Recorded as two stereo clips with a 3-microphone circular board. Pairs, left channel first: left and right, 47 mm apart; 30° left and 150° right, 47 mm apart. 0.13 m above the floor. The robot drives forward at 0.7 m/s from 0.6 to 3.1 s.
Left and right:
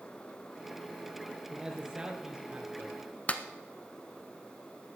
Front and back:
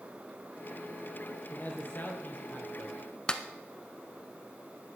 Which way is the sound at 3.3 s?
80° left.